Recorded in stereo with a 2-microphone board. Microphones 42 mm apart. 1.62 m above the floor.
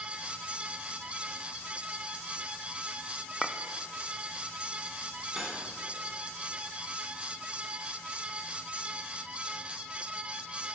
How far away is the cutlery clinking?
About 2.5 m.